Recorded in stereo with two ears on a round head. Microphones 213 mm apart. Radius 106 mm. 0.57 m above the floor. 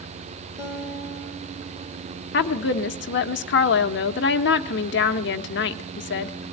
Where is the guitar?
15° right (ahead or behind), 4.5 m.